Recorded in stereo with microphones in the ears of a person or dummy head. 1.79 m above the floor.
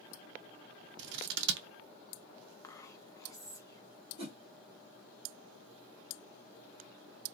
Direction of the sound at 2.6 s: 20° left (ahead or behind).